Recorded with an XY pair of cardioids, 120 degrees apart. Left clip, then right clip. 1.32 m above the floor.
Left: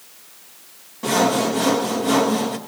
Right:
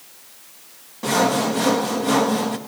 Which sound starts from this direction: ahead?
Sawing, at 1.0 s.